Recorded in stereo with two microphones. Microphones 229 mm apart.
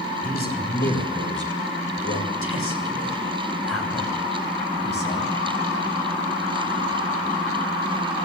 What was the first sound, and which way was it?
A man speaking, 40° left (ahead or behind).